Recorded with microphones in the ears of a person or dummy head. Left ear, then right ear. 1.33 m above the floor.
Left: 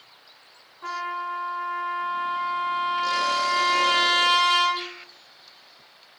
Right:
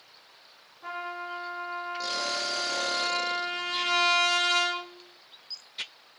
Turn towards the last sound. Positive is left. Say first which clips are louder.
# left 6 dB
turn(degrees=40)  # may be behind; listen again after turning